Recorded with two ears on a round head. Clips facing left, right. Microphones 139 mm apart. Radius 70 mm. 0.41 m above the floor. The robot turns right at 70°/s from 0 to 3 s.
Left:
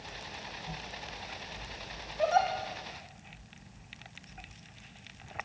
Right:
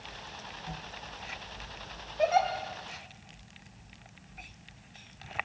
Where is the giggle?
25° right (ahead or behind), 3 m; by 2.5 s 5° right (ahead or behind), 3 m.